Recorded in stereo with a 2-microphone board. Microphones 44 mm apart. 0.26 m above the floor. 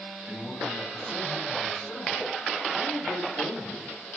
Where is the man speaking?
5° right (ahead or behind), 1.6 m; by 3.9 s 55° left (ahead or behind), 3.5 m.